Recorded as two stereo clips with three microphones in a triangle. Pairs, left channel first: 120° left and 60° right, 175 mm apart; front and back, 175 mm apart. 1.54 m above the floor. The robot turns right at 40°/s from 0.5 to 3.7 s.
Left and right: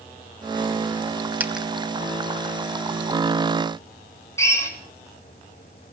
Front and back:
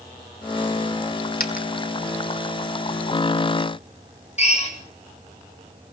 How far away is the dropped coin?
About 3.5 m.